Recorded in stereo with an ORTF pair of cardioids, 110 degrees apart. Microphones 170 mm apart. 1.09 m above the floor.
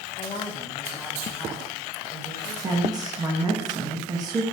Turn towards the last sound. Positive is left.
turn(degrees=-25)